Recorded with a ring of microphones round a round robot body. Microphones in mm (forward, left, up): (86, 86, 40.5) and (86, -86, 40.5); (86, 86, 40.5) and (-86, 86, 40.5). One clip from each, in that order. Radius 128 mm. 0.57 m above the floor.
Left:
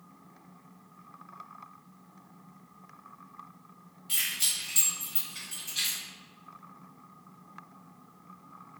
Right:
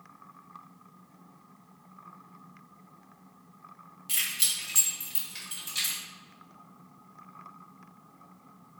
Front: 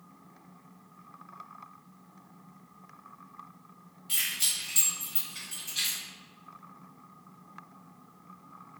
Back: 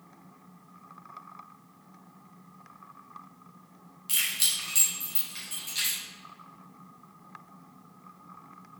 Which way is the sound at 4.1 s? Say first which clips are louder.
Even, back 2 dB; 140° right.